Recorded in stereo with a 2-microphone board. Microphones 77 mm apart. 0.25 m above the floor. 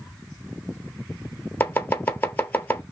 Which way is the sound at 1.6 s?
25° left (ahead or behind).